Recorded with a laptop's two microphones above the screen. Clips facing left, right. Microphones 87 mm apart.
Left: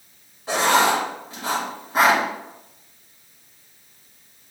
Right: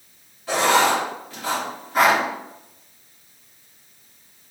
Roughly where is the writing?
Left.